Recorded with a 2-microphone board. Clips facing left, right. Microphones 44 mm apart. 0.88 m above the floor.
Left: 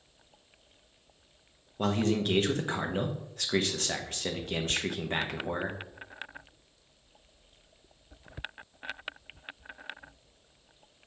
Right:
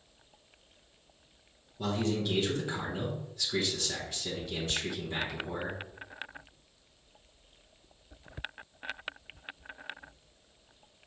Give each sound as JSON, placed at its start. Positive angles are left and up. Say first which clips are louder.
{"t": 1.8, "sound": "a man speaking", "louder": "left 3 dB", "side_deg": 55, "distance_m": 0.8}